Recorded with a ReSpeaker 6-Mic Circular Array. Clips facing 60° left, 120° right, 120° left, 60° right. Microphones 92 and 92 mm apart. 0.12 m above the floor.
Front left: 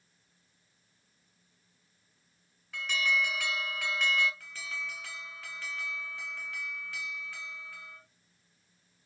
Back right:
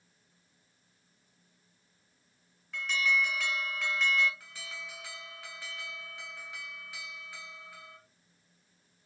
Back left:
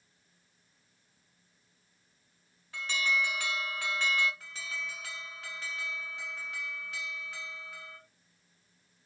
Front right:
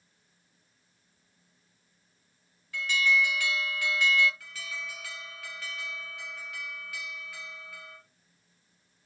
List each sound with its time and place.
2.7 s an alarm: 150° left, 2.5 m
4.4 s an alarm: 170° left, 1.8 m